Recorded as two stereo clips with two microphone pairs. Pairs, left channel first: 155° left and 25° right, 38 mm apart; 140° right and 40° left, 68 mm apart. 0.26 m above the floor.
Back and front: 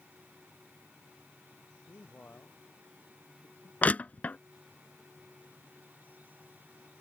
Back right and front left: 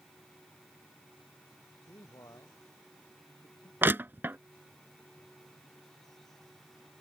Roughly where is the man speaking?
Behind.